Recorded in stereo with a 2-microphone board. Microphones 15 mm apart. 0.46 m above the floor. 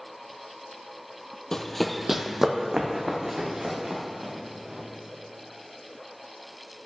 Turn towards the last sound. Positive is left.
turn(degrees=-65)  # may be behind; listen again after turning